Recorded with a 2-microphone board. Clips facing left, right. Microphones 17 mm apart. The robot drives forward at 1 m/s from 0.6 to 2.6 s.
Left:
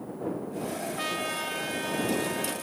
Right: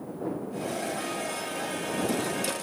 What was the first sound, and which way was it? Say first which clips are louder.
A trumpet: left 2 dB; 30° left (ahead or behind).